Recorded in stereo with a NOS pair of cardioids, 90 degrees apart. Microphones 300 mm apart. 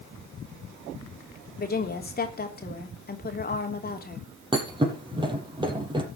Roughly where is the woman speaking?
Ahead left.